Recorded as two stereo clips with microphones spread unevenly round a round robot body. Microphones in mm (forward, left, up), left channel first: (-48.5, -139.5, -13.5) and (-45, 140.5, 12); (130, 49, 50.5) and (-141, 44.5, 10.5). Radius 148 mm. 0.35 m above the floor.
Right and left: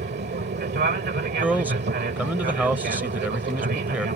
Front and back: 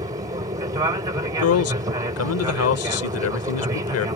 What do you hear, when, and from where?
0.0 s an aircraft: 125° left
1.4 s a man speaking: straight ahead